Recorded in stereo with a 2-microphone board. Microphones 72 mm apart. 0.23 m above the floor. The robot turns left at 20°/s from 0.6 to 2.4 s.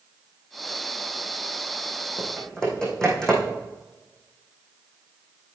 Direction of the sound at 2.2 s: 5° left (ahead or behind).